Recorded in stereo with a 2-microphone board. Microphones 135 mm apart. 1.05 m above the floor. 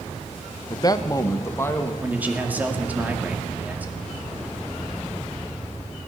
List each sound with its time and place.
0.7 s a man speaking: 35° left (ahead or behind), 0.7 m; by 1.9 s 15° left (ahead or behind), 1.5 m
2.0 s a man speaking: 10° right (ahead or behind), 1.9 m